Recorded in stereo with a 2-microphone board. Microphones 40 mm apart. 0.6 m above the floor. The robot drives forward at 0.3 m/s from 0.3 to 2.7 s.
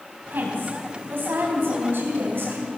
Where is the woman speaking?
60° right (ahead or behind), 4 m; by 2.7 s 65° right (ahead or behind), 3.5 m.